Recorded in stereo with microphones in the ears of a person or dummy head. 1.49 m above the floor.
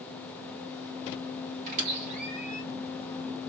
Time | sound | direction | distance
1.7 | a squeak | 40° right (ahead or behind) | 1.7 m